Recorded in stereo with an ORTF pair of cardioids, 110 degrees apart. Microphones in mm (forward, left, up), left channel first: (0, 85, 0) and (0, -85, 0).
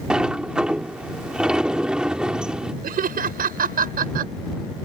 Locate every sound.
0.1 s a sliding door: 5° right
2.8 s laughter: 60° right